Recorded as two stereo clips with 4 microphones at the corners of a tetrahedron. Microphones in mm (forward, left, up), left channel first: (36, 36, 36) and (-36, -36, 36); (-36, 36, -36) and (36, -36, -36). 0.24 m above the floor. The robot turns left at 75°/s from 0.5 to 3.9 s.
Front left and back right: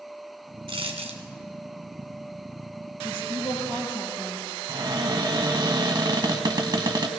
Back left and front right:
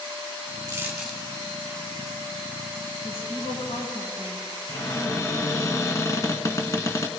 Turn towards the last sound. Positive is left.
turn(degrees=-175)